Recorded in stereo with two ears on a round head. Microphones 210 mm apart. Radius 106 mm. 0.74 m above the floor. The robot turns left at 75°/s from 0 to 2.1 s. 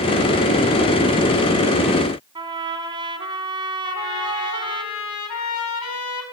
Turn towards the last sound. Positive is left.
turn(degrees=85)